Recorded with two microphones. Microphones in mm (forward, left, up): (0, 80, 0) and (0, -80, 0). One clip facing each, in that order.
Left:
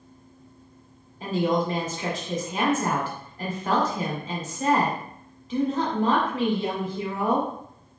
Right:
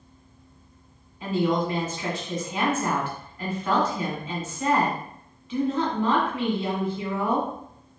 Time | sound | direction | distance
1.2 | a woman speaking | 40° left (ahead or behind) | 1.7 m